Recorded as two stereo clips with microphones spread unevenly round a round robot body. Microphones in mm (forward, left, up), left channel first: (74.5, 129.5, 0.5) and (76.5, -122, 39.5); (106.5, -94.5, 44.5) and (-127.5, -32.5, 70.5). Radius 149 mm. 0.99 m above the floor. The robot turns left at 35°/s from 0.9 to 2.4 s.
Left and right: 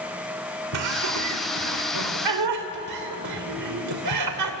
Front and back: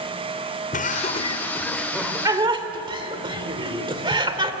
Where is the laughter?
70° right, 3 m; by 4.5 s 125° right, 3 m.